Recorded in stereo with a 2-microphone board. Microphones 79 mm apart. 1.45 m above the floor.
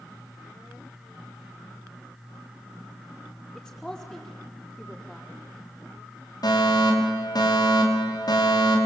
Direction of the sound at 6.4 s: 55° left (ahead or behind).